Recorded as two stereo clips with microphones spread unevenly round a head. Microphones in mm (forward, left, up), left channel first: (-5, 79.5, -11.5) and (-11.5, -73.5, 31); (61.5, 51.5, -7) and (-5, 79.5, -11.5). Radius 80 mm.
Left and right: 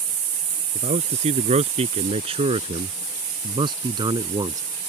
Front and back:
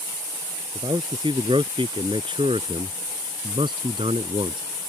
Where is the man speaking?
140° right; by 4.6 s 160° right.